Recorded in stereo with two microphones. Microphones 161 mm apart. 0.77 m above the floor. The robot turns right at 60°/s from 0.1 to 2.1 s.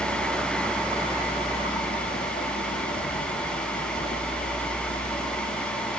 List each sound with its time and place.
0.0 s a vehicle: 60° right (ahead or behind); by 6.0 s 85° left